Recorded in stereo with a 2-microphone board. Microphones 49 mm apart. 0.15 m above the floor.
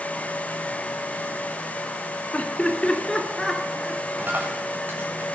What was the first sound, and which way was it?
Laughter, 30° left (ahead or behind).